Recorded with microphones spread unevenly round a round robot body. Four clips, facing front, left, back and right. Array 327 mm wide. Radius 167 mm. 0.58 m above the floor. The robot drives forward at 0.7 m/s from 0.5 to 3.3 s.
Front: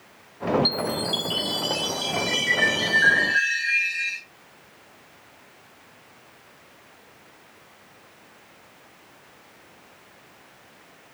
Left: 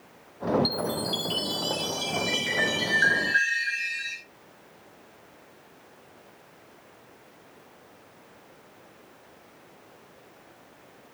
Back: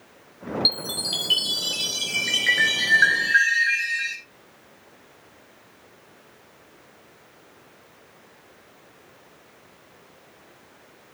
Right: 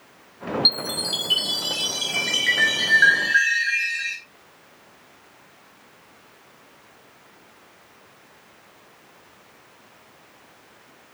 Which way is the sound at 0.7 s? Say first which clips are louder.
Left 2 dB, front 7 dB; 160° right.